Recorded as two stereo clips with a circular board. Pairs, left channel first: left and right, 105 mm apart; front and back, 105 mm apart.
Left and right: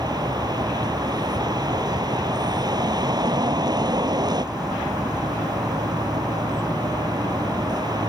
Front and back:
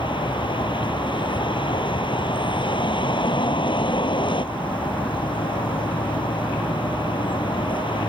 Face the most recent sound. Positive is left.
turn(degrees=-40)